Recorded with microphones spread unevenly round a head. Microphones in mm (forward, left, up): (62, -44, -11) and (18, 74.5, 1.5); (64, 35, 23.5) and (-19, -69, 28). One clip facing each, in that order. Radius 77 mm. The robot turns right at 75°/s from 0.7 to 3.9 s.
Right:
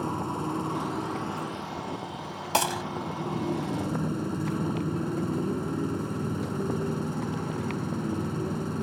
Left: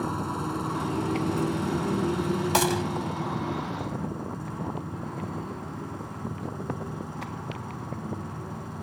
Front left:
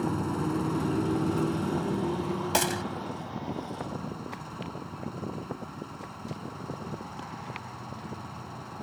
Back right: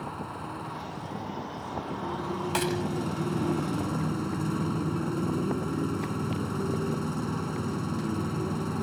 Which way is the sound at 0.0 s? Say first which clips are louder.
Even, front left 8 dB; 15° left.